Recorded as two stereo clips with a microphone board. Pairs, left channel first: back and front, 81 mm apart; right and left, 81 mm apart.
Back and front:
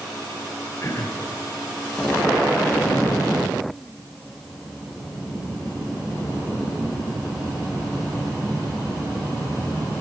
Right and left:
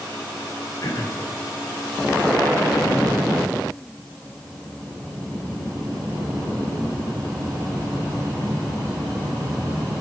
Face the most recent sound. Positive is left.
turn(degrees=-130)